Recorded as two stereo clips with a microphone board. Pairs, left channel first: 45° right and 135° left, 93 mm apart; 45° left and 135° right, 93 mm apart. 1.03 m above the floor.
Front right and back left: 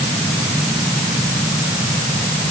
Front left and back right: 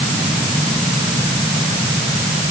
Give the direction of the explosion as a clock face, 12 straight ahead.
I don't hear an explosion.